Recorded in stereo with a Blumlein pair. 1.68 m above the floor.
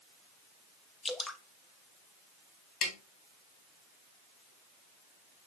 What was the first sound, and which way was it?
Dripping, 15° left.